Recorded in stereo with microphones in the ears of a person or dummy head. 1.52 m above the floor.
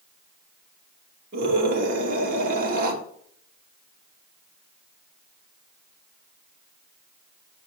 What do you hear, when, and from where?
1.3 s a scream: 50° right (ahead or behind), 2.5 m